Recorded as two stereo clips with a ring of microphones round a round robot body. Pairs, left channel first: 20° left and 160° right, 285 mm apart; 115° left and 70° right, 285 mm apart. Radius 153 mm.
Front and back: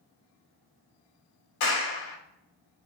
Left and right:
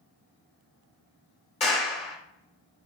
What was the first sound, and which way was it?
A clap, 45° left.